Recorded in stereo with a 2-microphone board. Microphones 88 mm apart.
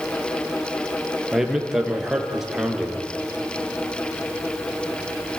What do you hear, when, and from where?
1.3 s a man speaking: 5° right (ahead or behind), 3.5 m